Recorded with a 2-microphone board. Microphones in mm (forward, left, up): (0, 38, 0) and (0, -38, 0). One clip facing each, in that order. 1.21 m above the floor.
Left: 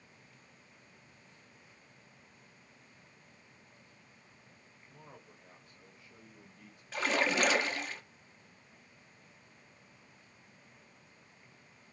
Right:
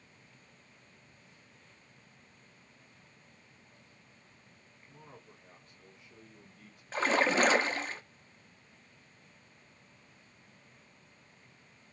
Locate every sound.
4.9 s a man speaking: 5° right (ahead or behind), 2 m; by 6.8 s 20° left (ahead or behind), 1.4 m
6.9 s a splash: 35° right (ahead or behind), 0.5 m